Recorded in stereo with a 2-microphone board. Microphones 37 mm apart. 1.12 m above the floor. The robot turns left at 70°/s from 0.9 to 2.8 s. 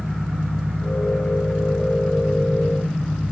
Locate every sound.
0.0 s an engine running: 115° right, 5.5 m; by 3.3 s 115° left, 5.5 m